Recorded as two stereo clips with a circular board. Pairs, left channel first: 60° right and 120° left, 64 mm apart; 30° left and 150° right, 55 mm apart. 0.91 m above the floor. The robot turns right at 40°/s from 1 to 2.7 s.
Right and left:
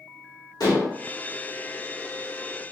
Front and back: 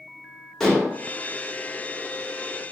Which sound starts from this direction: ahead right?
Dishes clattering, at 0.6 s.